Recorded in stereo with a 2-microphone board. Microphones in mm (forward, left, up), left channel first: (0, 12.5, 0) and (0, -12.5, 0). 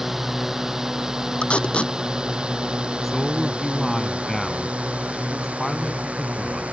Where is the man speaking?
5° left (ahead or behind).